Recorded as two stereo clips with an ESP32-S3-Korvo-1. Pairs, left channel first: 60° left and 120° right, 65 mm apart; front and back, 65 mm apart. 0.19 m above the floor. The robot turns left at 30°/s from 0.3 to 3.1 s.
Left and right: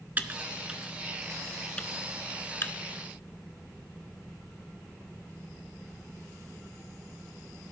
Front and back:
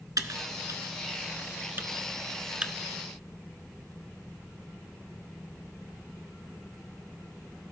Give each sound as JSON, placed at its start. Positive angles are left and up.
{"t": 0.2, "sound": "typing on a keyboard", "azimuth_deg": 180, "distance_m": 0.6}